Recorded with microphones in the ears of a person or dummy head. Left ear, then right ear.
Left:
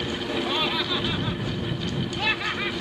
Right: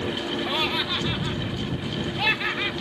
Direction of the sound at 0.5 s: Centre (ahead or behind).